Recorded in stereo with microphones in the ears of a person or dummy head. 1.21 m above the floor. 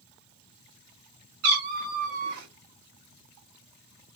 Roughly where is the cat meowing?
Right.